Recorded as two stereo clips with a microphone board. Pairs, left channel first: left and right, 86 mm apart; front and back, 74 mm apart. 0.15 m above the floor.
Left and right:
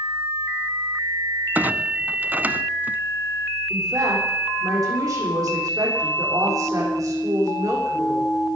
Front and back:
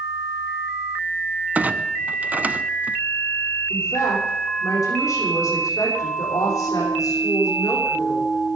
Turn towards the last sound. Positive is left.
turn(degrees=-45)